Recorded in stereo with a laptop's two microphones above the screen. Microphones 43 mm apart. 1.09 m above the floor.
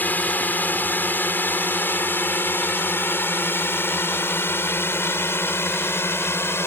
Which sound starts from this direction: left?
A drone, at 0.0 s.